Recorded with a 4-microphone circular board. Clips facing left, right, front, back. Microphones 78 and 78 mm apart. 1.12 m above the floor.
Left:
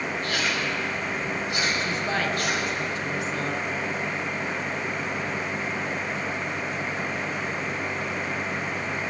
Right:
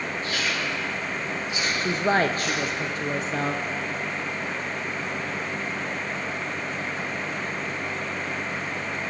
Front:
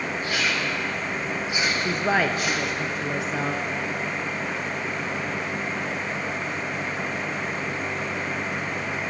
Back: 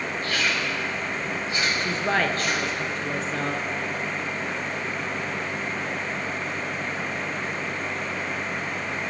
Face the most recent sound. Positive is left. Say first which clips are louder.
# right 4 dB, front 2 dB
turn(degrees=-75)